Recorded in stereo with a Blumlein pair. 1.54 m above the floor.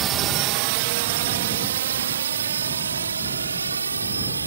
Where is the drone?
30° right; by 4.5 s 80° right.